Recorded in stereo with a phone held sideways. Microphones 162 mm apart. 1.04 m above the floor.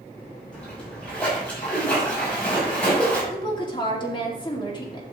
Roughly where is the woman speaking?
Left.